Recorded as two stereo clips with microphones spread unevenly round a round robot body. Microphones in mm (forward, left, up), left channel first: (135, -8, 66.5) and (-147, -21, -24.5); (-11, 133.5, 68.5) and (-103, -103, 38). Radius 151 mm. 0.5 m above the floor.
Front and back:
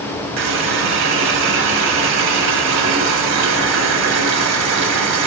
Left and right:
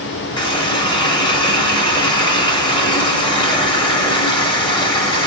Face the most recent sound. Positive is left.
turn(degrees=140)